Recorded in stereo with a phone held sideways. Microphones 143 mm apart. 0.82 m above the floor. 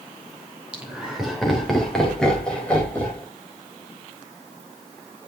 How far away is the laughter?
About 3 m.